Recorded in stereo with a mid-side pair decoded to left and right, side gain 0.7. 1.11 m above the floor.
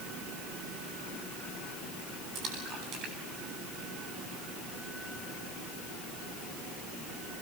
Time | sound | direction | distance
2.4 | a splash | 50° right | 8.5 m